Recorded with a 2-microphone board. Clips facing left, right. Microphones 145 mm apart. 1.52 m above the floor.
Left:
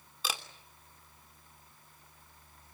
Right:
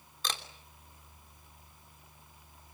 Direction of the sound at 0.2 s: 5° left (ahead or behind).